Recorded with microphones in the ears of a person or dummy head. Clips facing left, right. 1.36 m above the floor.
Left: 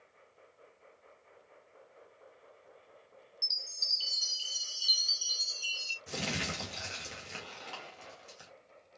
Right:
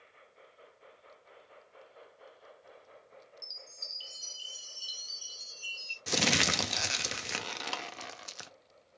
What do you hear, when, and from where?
3.4 s a chime: 25° left (ahead or behind), 0.7 m
6.1 s crumpling: 70° right (ahead or behind), 0.5 m